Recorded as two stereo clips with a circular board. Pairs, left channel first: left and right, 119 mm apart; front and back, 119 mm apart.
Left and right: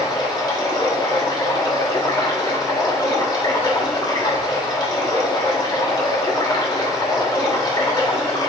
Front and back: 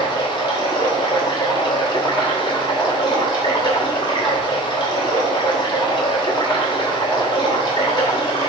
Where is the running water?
45° left, 1.1 m.